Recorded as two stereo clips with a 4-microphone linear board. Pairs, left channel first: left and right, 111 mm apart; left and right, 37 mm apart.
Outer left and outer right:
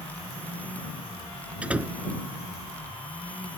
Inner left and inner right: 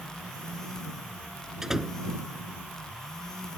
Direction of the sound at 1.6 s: 10° right (ahead or behind).